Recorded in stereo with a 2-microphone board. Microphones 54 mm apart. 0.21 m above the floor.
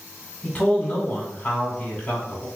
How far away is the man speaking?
About 1.6 m.